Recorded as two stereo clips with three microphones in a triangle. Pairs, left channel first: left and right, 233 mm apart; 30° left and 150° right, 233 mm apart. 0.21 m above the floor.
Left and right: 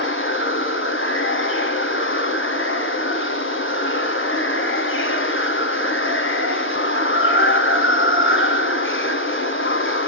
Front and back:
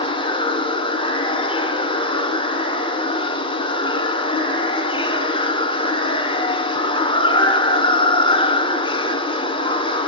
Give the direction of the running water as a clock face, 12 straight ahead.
9 o'clock.